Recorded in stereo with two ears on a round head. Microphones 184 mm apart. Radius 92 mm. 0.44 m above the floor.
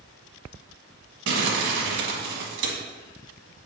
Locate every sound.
1.3 s crumpling: 65° right (ahead or behind), 1.5 m